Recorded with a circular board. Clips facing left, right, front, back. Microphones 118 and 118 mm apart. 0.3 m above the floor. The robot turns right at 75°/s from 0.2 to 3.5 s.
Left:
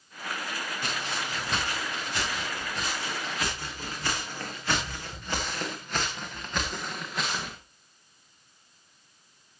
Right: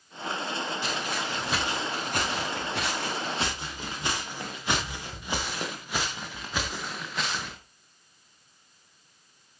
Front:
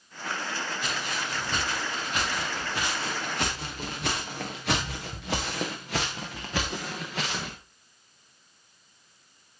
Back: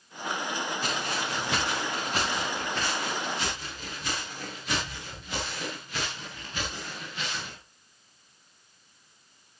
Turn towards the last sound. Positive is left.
turn(degrees=5)